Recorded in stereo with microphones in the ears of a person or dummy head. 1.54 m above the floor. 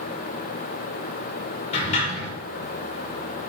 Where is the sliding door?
40° left (ahead or behind), 5.5 m.